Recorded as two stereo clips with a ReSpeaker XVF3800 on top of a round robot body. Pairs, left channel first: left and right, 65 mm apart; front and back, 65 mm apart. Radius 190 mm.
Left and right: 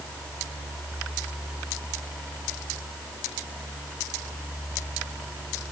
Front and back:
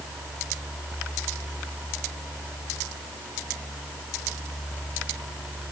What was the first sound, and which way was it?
Only background noise.